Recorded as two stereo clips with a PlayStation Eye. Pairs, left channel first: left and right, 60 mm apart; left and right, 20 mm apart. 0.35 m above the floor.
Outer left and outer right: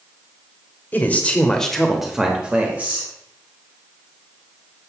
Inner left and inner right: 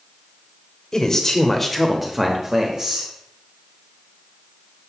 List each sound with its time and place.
0.9 s a man speaking: 30° left (ahead or behind), 1.0 m; by 3.1 s 30° right (ahead or behind), 1.2 m